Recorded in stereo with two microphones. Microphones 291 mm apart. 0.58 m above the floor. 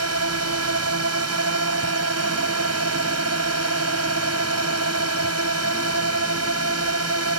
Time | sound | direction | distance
0.0 | a drone | 55° right (ahead or behind) | ?